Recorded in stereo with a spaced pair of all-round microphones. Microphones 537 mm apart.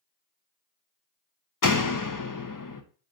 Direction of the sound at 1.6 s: 40° left (ahead or behind).